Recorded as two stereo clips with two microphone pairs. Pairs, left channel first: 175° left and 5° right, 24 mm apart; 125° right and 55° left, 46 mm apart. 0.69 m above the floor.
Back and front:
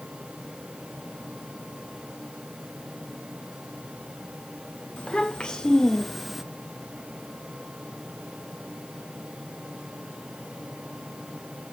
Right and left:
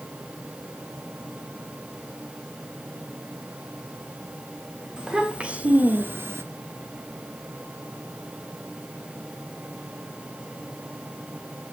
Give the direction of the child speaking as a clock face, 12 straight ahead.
8 o'clock.